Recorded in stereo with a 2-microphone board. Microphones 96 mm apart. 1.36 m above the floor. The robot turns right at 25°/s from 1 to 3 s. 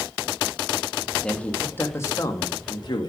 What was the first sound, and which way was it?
A man speaking, 10° left (ahead or behind).